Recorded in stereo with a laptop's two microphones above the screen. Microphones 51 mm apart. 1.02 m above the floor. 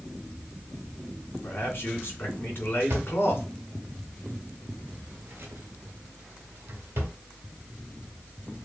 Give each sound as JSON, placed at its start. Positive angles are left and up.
{"t": 1.4, "sound": "a man speaking", "side_deg": 50, "distance_m": 1.6}
{"t": 2.9, "sound": "a drawer", "side_deg": -60, "distance_m": 1.1}